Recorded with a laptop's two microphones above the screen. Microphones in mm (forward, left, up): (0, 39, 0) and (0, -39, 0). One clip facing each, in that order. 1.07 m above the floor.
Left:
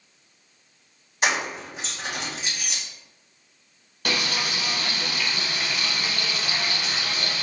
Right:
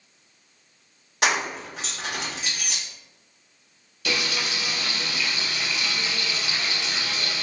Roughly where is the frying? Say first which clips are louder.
Left 1 dB; left.